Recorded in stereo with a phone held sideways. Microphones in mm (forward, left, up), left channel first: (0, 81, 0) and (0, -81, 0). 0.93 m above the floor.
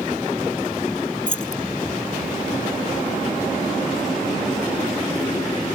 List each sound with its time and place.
1.3 s keys jangling: 55° left (ahead or behind)